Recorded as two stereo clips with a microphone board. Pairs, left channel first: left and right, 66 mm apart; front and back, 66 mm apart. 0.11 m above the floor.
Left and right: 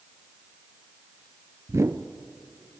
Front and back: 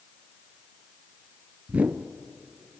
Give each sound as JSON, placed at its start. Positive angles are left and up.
{"t": 1.7, "sound": "a whoosh", "azimuth_deg": -120, "distance_m": 0.9}